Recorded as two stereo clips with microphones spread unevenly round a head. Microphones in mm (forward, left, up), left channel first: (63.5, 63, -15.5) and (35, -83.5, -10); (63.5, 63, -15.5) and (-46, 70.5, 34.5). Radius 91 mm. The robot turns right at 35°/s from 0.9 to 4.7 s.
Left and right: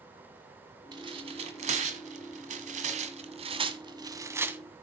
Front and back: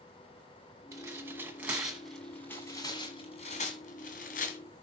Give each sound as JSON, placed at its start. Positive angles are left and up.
{"t": 0.9, "sound": "tearing paper", "azimuth_deg": -155, "distance_m": 1.6}